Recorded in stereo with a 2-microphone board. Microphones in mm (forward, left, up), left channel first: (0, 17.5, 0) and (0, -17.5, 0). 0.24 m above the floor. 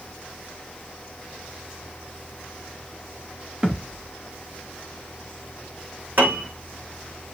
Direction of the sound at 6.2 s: 60° right (ahead or behind).